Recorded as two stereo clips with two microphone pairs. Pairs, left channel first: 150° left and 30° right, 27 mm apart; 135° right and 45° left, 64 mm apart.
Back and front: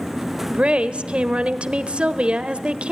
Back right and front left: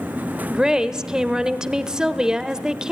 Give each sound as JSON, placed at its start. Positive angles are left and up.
{"t": 0.5, "sound": "a woman speaking", "azimuth_deg": -35, "distance_m": 1.1}